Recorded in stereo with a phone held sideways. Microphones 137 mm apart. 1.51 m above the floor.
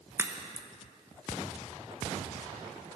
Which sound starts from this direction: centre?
A crack, at 0.2 s.